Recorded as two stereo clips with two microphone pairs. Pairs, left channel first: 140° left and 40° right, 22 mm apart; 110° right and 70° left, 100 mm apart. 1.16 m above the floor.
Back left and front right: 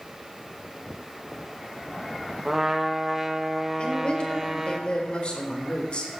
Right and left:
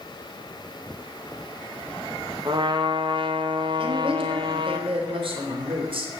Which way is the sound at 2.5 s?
35° left.